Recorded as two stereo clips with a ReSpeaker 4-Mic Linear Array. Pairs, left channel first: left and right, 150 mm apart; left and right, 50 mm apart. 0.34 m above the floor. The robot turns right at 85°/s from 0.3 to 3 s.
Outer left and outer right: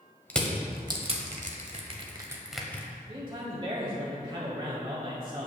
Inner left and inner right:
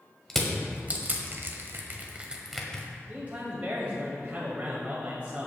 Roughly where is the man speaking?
Right.